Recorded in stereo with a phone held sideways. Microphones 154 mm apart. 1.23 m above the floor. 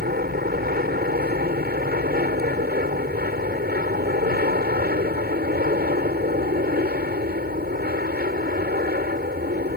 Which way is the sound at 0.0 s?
75° right (ahead or behind).